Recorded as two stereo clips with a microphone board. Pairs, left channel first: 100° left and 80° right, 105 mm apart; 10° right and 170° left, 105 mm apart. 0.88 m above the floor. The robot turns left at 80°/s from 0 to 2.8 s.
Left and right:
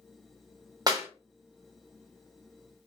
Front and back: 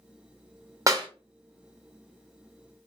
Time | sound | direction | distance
0.9 | a clap | 130° right | 0.9 m